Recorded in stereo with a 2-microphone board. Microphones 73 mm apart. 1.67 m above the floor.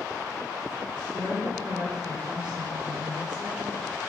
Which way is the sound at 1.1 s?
70° right (ahead or behind).